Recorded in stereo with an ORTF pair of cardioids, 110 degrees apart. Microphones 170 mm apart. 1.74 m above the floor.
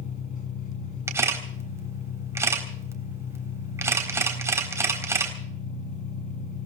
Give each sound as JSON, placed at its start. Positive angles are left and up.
{"t": 0.0, "sound": "an engine running", "azimuth_deg": 50, "distance_m": 7.0}
{"t": 1.1, "sound": "a camera shutter", "azimuth_deg": -15, "distance_m": 3.5}